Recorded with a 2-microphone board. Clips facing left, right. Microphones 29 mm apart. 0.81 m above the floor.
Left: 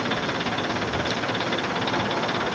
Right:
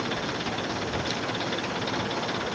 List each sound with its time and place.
0.0 s an engine running: 20° left (ahead or behind)